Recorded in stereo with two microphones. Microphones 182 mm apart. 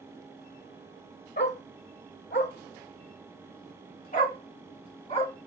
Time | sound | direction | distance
1.4 | a dog barking | 70° left (ahead or behind) | 1.1 m